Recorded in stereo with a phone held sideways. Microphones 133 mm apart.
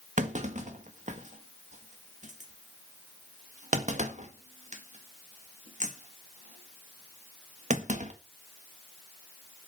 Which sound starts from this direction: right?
A clunk, at 0.2 s.